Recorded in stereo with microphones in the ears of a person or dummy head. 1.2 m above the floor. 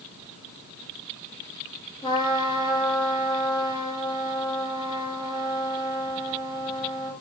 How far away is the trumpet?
About 1.3 m.